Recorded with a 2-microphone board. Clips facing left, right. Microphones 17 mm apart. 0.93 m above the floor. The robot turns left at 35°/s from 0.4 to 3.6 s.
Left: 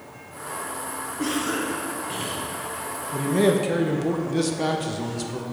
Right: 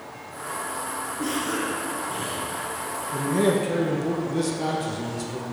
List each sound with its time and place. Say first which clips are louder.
1.2 s a cough: left 2 dB; 150° left, 1.0 m; by 2.5 s 105° left, 1.0 m
3.1 s a man speaking: left 2 dB; 15° left (ahead or behind), 0.5 m; by 5.4 s 25° left (ahead or behind), 0.5 m